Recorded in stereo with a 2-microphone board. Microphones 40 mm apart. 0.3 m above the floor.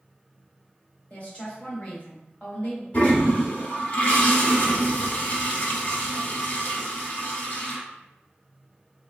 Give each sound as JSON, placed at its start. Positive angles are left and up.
{"t": 1.1, "sound": "a woman speaking", "side_deg": 40, "distance_m": 1.4}
{"t": 2.9, "sound": "a toilet flushing", "side_deg": 45, "distance_m": 0.8}